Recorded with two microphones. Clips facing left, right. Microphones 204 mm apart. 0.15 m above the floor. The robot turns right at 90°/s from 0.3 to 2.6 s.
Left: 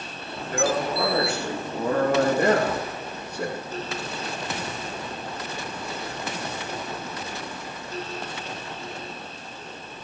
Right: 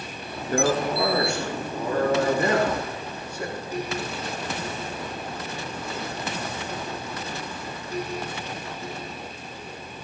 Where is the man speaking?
70° right, 7.5 m; by 3.7 s 120° left, 7.5 m.